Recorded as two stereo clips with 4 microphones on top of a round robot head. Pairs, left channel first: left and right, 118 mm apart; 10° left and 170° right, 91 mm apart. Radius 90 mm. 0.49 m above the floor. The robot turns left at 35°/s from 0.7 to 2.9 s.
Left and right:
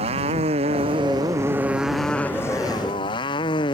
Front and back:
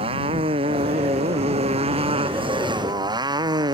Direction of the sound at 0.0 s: 135° right.